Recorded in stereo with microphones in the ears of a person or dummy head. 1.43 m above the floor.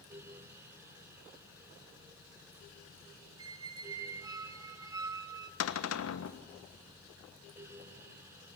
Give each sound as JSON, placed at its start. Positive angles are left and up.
{"t": 3.4, "sound": "a squeak", "side_deg": -25, "distance_m": 1.0}
{"t": 5.6, "sound": "a cupboard door", "side_deg": 80, "distance_m": 1.1}